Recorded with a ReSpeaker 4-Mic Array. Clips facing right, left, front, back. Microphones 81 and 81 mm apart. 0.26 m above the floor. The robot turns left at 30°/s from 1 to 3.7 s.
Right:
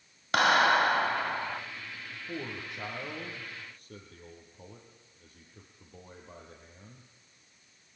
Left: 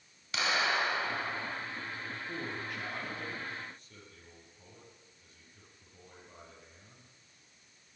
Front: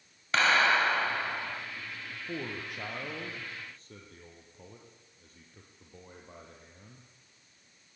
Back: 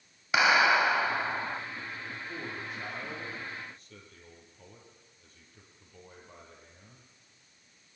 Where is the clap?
105° right, 2.5 m; by 1.6 s 120° right, 2.5 m.